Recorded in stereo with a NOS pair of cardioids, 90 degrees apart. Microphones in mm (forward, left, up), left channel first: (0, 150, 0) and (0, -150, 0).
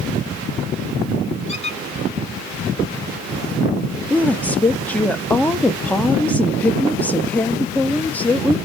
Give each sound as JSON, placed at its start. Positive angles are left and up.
{"t": 1.5, "sound": "a squeak", "azimuth_deg": 20, "distance_m": 1.2}
{"t": 4.1, "sound": "a woman speaking", "azimuth_deg": 5, "distance_m": 0.8}